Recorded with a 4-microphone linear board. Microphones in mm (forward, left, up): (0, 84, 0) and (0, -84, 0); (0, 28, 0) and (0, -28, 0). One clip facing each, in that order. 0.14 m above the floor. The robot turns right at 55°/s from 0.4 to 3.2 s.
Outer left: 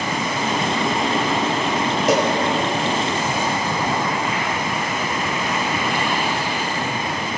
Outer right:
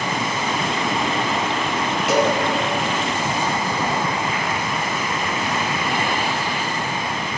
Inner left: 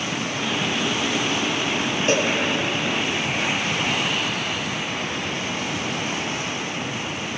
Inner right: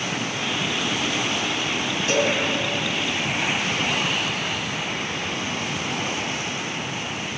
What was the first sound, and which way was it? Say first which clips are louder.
A cowbell: even, even; 45° left (ahead or behind).